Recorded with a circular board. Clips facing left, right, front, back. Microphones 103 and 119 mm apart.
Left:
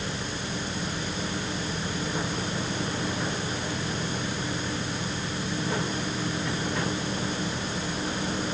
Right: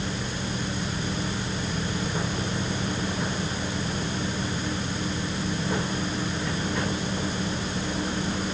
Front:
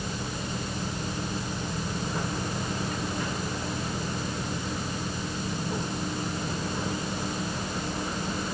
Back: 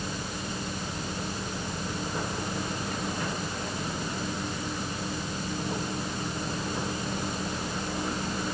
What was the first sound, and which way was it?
Only background noise.